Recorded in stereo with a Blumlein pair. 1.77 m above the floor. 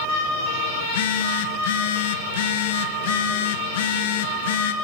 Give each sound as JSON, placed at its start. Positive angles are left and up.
{"t": 0.8, "sound": "a phone buzzing", "azimuth_deg": 55, "distance_m": 1.5}